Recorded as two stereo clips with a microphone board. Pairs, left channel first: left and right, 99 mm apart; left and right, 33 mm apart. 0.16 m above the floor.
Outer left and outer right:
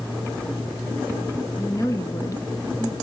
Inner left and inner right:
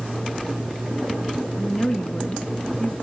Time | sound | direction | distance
1.6 | a woman speaking | 35° left (ahead or behind) | 1.8 m